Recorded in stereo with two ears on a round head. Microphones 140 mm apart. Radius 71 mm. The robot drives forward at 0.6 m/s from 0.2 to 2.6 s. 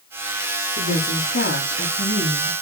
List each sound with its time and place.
0.8 s a woman speaking: 60° left (ahead or behind), 4 m; by 2.5 s 70° left (ahead or behind), 3.5 m